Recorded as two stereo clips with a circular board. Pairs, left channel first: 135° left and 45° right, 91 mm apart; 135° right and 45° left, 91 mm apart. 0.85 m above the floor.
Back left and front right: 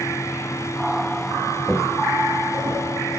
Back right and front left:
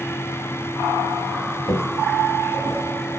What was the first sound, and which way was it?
Footsteps, 130° right.